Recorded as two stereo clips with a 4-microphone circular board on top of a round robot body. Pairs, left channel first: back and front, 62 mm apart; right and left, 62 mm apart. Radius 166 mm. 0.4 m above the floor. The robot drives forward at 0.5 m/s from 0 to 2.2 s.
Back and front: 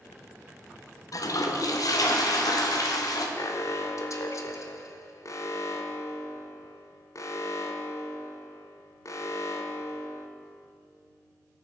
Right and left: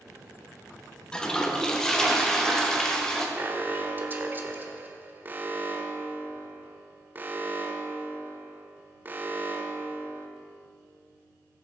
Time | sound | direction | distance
1.1 | a toilet flushing | 165° right | 1.1 m
3.4 | an alarm | 150° left | 1.1 m